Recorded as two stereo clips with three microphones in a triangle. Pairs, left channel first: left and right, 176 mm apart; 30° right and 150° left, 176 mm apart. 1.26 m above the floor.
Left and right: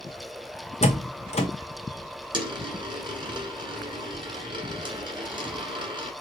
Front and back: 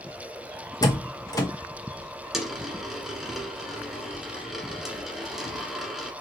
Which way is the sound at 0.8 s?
40° left.